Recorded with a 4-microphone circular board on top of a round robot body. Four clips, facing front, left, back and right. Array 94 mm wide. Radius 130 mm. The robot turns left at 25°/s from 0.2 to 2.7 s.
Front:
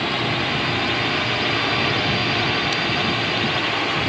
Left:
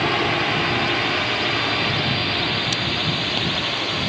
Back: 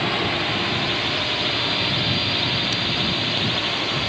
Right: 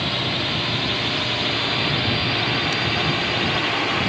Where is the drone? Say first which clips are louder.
Left 5 dB, front 1 dB; 85° left; by 4.1 s 45° right.